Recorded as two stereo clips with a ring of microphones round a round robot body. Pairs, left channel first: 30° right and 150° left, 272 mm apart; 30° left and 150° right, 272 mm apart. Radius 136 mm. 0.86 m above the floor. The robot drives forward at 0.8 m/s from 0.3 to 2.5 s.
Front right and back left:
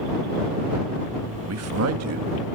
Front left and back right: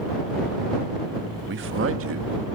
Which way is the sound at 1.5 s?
170° left.